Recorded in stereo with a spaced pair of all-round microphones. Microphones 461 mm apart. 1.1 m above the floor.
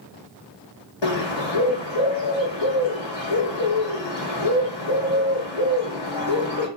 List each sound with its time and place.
1.0 s a bird: 65° left (ahead or behind), 0.9 m